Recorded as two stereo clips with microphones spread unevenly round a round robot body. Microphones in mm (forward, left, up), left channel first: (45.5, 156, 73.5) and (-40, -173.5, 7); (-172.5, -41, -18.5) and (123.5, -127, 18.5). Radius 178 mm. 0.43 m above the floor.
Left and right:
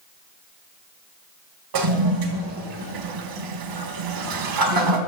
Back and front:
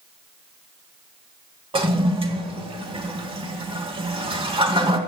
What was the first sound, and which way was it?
A toilet flushing, 90° right.